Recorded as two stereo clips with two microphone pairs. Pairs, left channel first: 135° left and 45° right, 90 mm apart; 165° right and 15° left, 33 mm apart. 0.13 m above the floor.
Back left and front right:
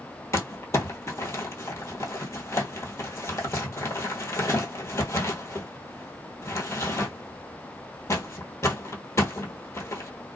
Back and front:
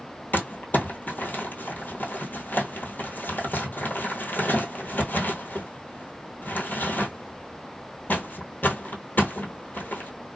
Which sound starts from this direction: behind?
Crumpling, at 0.3 s.